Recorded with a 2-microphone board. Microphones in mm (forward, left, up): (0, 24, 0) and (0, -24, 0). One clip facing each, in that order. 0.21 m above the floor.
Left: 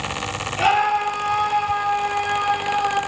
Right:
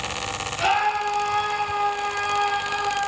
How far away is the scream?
About 8 m.